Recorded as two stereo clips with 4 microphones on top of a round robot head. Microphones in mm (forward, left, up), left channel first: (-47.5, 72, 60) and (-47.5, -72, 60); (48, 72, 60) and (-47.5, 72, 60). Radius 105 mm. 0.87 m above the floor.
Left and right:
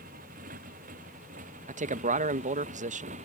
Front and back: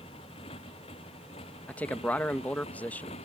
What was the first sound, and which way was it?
A motorcycle, 50° right.